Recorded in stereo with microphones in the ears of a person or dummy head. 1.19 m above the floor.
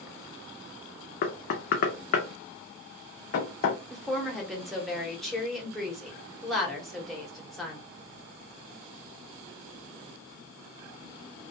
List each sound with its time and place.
1.2 s knocking: 45° left (ahead or behind), 0.6 m
3.9 s a woman speaking: 5° left (ahead or behind), 0.9 m